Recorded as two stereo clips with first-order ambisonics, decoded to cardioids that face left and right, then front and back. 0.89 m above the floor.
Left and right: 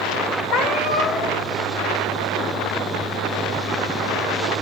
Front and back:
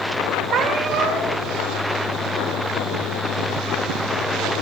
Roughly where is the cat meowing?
Behind left.